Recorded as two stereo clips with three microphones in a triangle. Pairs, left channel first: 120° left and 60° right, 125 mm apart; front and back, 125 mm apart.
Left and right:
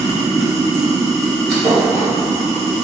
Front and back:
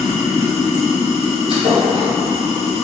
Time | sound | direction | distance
0.0 | running water | 35° left | 0.8 m
1.5 | a thud | 150° right | 1.1 m